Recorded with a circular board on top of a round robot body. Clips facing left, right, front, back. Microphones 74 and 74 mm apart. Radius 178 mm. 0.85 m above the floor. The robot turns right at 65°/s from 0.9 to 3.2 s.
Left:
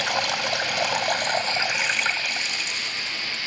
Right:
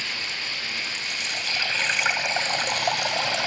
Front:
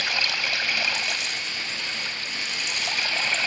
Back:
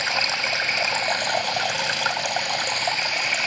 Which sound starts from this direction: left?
Running water, at 0.0 s.